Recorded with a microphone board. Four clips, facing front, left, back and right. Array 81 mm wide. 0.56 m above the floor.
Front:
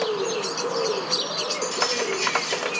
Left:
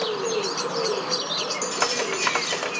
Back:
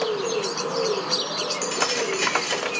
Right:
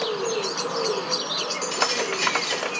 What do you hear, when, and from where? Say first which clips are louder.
1.6 s keys jangling: right 1 dB, even; 155° right, 1.0 m